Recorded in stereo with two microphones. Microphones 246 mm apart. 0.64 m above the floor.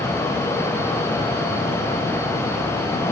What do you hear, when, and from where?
Only background noise.